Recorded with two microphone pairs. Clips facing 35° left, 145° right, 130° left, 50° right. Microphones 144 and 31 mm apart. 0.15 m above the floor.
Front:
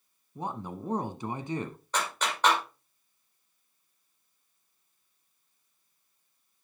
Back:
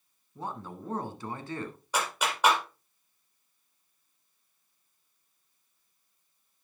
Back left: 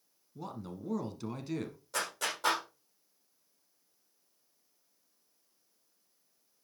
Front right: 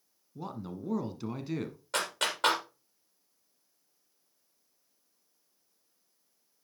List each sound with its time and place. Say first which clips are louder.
0.3 s a man speaking: front 3 dB, front right 3 dB; 10° left, 1.0 m
1.9 s a clap: back 1 dB, front right 4 dB; 65° right, 4 m